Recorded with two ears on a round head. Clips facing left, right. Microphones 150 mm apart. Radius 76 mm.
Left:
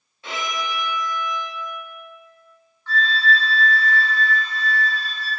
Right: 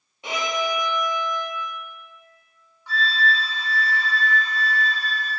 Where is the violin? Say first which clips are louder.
Right 3 dB; 20° right (ahead or behind), 1.1 m.